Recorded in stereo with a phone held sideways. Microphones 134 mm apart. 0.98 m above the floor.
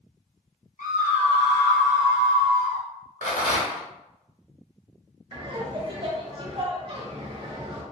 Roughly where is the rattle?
Left.